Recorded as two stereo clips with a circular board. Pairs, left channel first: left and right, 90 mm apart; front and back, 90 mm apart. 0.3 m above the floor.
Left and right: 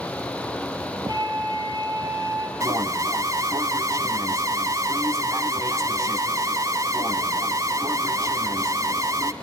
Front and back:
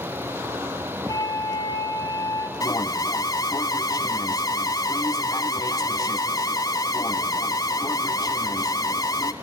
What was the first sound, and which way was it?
A flute, 50° right.